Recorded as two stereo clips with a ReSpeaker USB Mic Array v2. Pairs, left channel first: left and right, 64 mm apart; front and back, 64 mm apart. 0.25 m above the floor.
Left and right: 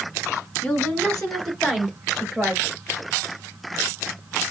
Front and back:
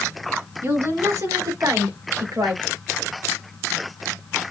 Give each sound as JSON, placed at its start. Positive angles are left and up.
{"t": 0.6, "sound": "a woman speaking", "azimuth_deg": 155, "distance_m": 1.7}